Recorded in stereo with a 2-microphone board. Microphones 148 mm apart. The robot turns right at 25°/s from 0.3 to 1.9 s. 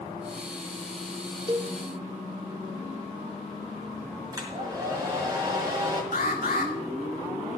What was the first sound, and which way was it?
A cowbell, 30° right (ahead or behind).